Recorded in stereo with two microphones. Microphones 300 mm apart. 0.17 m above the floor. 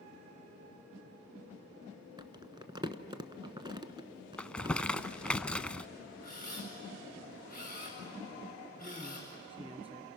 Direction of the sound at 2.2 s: 15° right (ahead or behind).